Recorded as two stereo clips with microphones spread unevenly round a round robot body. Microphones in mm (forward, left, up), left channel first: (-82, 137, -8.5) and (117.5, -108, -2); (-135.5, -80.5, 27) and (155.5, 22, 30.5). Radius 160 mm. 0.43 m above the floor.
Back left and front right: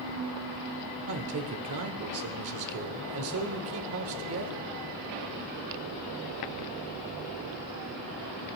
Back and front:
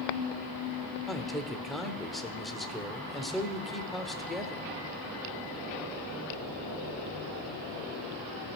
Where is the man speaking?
70° right, 0.9 m.